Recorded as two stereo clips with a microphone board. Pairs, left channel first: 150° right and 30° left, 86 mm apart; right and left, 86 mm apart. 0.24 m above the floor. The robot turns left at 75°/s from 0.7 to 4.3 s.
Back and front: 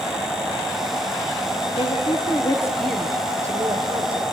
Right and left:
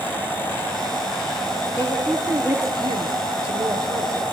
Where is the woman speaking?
145° right, 4.5 m; by 4.2 s 25° left, 4.5 m.